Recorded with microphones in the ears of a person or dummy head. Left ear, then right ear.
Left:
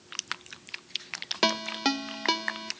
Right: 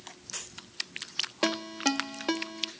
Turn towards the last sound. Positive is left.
turn(degrees=30)  # may be behind; listen again after turning